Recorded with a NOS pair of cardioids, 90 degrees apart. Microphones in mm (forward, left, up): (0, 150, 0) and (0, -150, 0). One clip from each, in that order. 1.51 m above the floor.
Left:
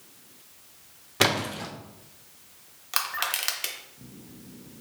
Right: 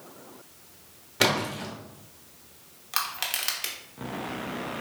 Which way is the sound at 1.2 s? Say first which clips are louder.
Even; 20° left.